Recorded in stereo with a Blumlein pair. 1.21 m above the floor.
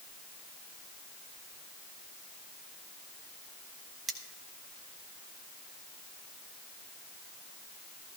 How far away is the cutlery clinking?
About 0.9 m.